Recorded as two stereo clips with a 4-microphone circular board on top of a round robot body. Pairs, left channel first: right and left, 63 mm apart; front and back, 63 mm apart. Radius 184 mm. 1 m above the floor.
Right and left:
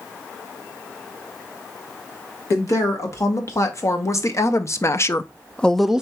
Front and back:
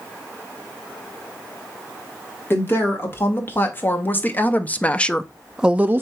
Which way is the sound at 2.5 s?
55° right.